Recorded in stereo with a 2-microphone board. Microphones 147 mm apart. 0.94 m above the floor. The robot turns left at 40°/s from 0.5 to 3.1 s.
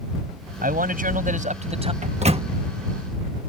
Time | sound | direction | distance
0.6 | a man speaking | 85° right | ?
2.0 | a microwave | 55° right (ahead or behind) | ?